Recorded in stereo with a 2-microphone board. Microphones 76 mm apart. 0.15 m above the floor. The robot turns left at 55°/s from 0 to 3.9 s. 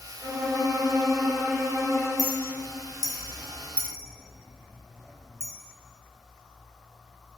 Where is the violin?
50° right, 2.5 m; by 2.1 s 155° right, 2.5 m.